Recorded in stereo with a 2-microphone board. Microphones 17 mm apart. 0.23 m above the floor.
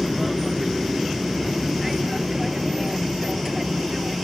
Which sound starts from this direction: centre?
An aircraft, at 0.0 s.